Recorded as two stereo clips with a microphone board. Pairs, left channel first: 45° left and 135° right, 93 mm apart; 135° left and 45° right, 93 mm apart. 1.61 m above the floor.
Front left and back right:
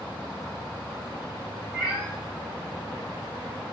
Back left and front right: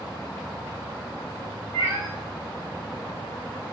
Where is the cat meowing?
160° left, 1.8 m.